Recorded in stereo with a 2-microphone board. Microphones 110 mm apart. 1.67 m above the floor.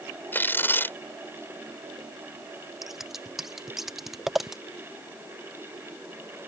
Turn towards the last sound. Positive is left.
turn(degrees=-5)  # may be behind; listen again after turning